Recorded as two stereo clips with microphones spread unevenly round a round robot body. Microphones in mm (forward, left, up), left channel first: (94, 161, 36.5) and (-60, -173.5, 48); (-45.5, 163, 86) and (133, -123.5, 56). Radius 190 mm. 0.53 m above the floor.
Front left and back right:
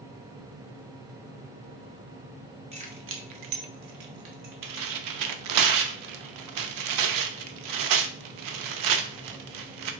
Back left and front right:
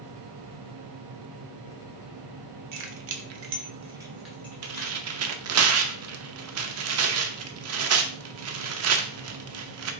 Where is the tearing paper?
90° right, 0.6 m.